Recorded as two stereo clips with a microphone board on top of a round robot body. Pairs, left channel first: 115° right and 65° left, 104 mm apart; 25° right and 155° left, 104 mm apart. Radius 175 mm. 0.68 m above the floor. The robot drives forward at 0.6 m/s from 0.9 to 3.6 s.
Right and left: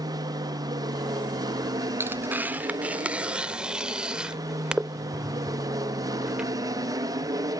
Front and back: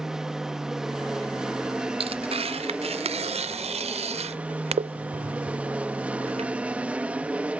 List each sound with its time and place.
0.0 s an aircraft: 75° left; by 7.6 s 85° left
2.0 s tearing paper: 135° left; by 6.5 s 150° left